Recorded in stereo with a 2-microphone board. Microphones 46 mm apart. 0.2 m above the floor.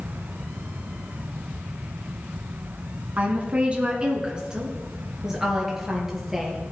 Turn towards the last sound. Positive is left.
turn(degrees=-5)  # may be behind; listen again after turning